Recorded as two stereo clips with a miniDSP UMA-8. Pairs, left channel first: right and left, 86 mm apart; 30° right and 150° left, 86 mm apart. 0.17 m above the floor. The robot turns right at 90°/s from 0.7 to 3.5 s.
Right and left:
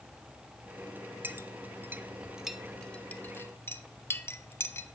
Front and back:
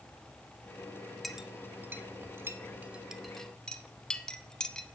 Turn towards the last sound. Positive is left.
turn(degrees=-100)